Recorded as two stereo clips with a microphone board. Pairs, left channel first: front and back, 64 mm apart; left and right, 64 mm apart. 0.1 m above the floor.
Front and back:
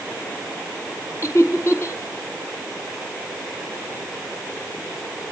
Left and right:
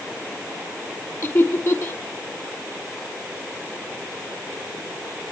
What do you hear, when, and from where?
1.2 s laughter: 35° left, 3.5 m